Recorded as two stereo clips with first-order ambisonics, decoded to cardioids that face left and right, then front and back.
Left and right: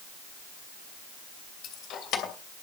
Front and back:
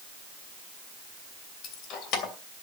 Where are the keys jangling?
40° left, 2.5 m.